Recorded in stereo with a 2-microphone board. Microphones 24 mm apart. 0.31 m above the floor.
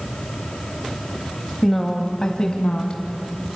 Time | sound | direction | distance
1.6 | a woman speaking | 5° left (ahead or behind) | 1.3 m